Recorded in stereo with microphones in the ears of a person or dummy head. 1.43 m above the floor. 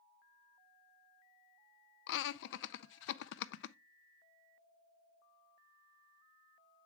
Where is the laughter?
60° left (ahead or behind), 0.5 m.